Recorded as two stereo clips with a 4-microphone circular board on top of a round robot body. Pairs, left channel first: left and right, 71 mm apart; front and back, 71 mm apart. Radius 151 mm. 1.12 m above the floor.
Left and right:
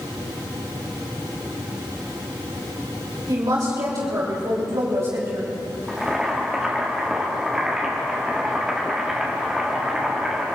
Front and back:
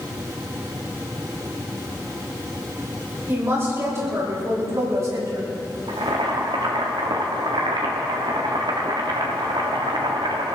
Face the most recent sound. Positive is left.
turn(degrees=-170)